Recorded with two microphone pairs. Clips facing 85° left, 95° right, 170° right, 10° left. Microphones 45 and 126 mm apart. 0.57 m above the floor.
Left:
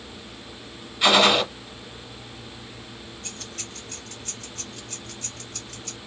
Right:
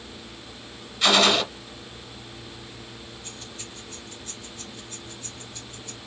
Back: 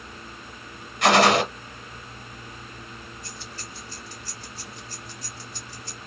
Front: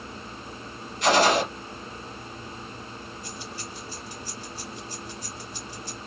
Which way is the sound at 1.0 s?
165° left.